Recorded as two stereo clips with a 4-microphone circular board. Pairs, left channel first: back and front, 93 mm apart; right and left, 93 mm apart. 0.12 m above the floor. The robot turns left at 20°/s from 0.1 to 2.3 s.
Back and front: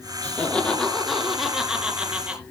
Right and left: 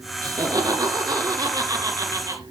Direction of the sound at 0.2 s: 110° left.